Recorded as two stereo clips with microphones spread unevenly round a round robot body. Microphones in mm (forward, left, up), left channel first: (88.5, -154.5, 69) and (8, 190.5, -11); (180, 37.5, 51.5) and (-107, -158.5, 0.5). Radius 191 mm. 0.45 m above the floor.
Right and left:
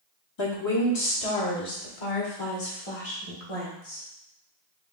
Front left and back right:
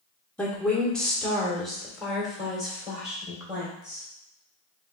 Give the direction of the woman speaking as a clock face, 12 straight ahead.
2 o'clock.